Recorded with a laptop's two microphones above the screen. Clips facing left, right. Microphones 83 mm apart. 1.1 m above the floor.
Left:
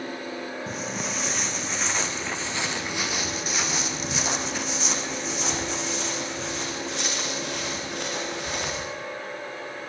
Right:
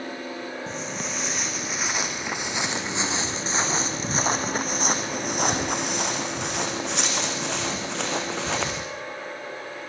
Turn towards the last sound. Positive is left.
turn(degrees=-75)  # may be behind; listen again after turning